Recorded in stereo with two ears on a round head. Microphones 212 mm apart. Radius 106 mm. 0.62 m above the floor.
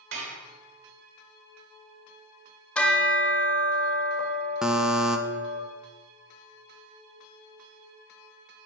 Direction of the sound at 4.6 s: 5° right (ahead or behind).